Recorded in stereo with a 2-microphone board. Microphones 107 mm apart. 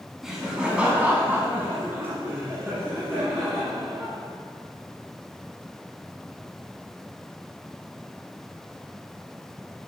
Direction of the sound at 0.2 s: 5° right (ahead or behind).